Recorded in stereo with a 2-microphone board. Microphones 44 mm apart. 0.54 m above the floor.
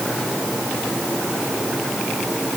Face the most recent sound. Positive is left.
No sound to turn to.